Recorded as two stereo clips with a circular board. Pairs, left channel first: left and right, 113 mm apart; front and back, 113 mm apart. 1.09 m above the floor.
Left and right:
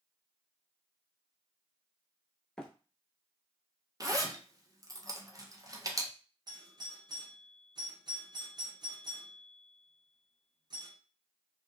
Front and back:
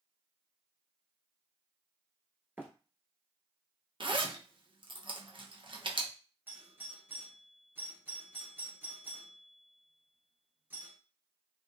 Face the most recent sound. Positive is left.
turn(degrees=-115)